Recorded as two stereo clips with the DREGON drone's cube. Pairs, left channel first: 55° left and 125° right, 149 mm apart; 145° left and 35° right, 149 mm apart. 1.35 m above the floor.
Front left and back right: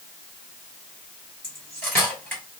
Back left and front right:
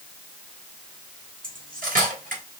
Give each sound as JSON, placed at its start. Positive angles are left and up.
{"t": 1.4, "sound": "cutlery clinking", "azimuth_deg": -20, "distance_m": 2.5}